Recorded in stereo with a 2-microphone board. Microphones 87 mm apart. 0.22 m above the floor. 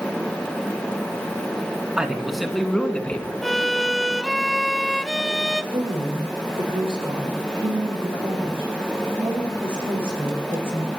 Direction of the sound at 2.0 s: 10° right (ahead or behind).